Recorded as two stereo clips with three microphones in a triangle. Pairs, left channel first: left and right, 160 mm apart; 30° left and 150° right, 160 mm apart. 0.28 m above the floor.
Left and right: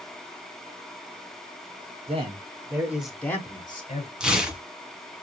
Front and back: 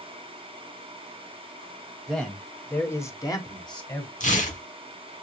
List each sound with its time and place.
2.1 s a man speaking: 60° right, 1.4 m; by 4.1 s 80° left, 1.3 m
4.2 s tearing paper: 5° right, 1.4 m